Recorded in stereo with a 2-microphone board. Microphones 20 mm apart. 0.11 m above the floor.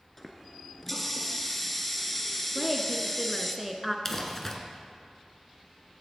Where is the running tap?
10° left (ahead or behind), 1.3 m.